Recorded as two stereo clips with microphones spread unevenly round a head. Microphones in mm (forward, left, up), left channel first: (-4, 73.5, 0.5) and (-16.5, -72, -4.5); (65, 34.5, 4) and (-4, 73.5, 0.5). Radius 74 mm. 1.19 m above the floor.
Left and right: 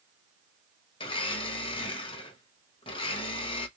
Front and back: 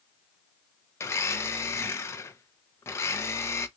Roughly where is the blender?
Ahead left.